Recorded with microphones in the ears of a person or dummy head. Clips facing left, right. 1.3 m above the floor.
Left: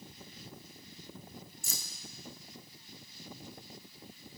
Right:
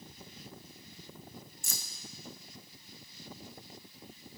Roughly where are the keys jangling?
Right.